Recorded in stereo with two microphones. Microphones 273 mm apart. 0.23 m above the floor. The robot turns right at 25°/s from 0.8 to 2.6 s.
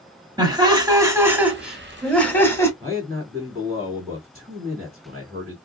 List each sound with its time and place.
0.4 s laughter: 30° right, 1.1 m; by 2.7 s 15° left, 1.1 m
2.8 s a man speaking: 25° right (ahead or behind), 1.8 m